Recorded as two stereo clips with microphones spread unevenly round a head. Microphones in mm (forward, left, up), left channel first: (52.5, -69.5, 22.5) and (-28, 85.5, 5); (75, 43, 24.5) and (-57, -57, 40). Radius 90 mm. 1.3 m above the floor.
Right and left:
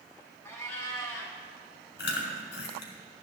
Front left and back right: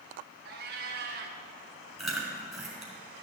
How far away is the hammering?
No hammering in this recording.